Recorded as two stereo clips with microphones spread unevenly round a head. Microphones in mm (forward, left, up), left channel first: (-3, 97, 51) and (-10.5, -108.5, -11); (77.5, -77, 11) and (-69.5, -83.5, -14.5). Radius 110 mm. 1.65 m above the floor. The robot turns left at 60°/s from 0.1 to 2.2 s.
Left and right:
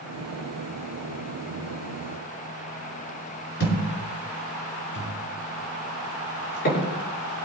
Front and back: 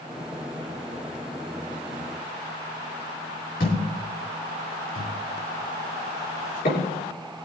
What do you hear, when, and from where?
3.6 s a thud: 50° left, 5.5 m